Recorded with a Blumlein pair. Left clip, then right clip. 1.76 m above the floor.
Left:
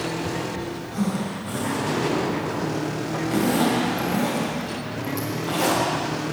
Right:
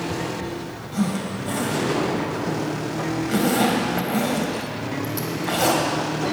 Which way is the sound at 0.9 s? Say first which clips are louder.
Right 3 dB; 5° right.